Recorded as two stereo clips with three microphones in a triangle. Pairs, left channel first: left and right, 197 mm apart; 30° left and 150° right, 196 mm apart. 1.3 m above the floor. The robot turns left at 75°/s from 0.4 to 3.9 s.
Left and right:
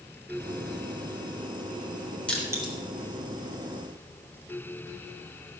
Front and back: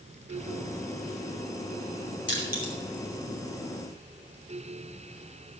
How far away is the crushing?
About 3.5 m.